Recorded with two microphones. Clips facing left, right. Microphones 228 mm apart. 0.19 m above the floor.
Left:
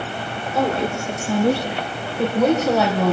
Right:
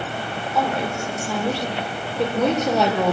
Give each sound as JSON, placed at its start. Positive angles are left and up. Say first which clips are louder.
{"t": 0.6, "sound": "a woman speaking", "louder": "left 3 dB", "side_deg": 30, "distance_m": 5.0}